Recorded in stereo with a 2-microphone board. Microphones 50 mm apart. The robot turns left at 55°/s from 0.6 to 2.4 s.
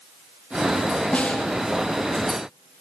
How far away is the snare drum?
About 1.2 m.